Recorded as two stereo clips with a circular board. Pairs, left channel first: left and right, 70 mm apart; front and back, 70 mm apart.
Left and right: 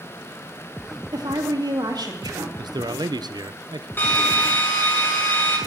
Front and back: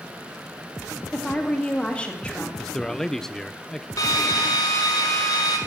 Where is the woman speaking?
75° right, 2 m.